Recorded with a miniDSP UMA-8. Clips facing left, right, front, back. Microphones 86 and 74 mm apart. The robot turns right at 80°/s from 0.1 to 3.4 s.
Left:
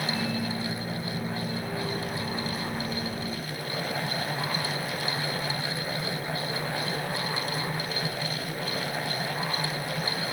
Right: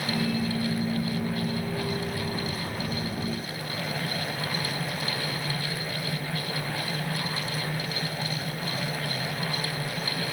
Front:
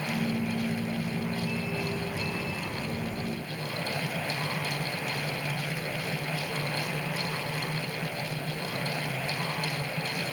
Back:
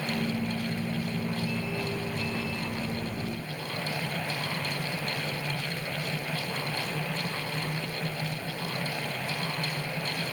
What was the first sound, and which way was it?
Only background noise.